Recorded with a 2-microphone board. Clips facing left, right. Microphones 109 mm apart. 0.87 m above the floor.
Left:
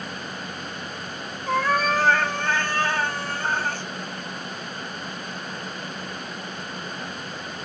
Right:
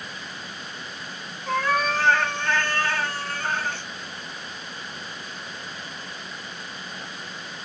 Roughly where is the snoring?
No snoring in this recording.